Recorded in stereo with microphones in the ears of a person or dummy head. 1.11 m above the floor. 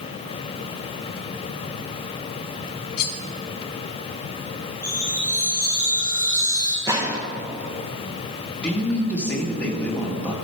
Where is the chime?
20° right (ahead or behind), 1.4 m.